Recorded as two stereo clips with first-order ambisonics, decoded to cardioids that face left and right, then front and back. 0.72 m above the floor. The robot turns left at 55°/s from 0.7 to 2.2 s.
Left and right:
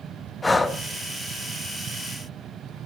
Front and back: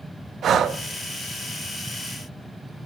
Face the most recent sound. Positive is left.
turn(degrees=80)